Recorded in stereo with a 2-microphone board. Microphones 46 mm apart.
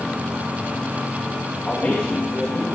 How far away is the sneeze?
No sneeze in this recording.